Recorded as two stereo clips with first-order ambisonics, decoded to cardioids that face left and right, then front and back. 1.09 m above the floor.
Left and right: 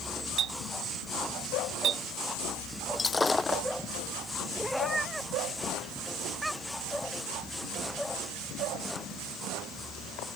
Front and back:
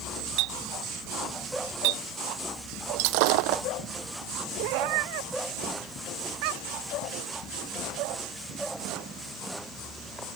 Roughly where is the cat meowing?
Behind.